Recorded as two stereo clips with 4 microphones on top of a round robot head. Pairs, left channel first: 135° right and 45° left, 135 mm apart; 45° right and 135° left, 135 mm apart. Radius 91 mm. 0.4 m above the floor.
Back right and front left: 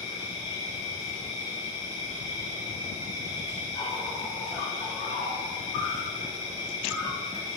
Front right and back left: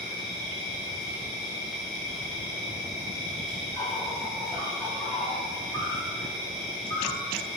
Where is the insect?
135° right, 2.0 m.